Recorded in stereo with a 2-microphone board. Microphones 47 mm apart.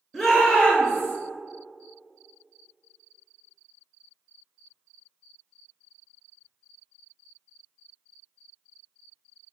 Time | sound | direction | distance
0.1 | a shout | centre (ahead or behind) | 1.5 m